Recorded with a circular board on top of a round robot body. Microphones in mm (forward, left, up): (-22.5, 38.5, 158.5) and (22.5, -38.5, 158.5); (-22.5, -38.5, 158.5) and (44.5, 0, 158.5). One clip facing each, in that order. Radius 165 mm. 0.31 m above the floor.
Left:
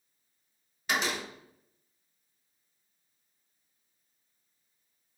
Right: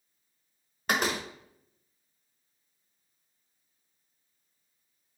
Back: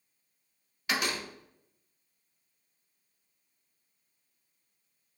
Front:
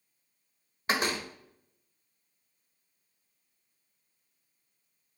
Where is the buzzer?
I don't hear a buzzer.